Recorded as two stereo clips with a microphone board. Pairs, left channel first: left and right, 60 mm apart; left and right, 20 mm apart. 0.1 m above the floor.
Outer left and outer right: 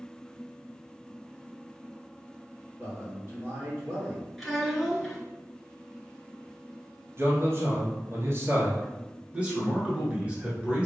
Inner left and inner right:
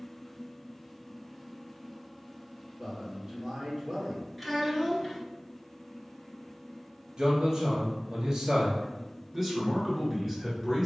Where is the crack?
No crack in this recording.